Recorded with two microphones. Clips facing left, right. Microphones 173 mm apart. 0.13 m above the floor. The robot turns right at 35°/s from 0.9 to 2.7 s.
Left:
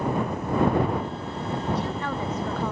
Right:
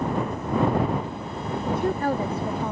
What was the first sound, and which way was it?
A woman speaking, 55° right.